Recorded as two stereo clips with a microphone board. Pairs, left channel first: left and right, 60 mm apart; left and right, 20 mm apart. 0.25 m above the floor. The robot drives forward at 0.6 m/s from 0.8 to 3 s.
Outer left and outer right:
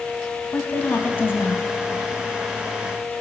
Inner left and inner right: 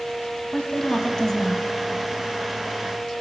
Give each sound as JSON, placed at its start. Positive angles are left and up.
{"t": 0.5, "sound": "a woman speaking", "side_deg": 30, "distance_m": 1.5}